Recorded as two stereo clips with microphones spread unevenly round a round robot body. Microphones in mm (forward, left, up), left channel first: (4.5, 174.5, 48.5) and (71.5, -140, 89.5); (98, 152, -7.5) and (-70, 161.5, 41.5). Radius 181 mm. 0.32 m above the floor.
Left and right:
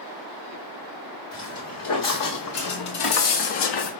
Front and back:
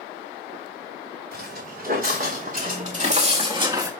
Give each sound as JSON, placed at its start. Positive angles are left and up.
{"t": 1.3, "sound": "footsteps", "azimuth_deg": 155, "distance_m": 3.0}